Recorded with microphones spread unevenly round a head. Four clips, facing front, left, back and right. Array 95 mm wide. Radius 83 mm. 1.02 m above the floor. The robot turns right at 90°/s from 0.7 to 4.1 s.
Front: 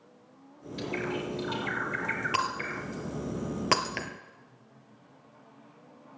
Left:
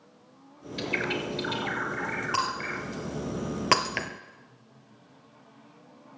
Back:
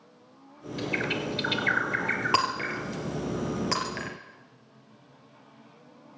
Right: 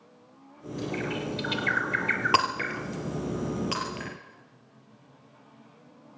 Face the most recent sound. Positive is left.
turn(degrees=80)